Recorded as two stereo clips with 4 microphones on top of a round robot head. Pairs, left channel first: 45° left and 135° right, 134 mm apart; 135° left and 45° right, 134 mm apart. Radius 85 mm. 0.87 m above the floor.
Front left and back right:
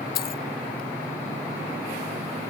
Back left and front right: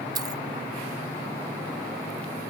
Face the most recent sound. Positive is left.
turn(degrees=20)